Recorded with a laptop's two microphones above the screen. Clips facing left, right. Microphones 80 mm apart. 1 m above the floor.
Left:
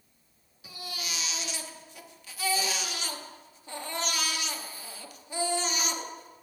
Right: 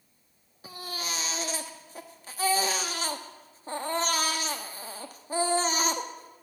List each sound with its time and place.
0.6 s a baby crying: 40° right (ahead or behind), 1.1 m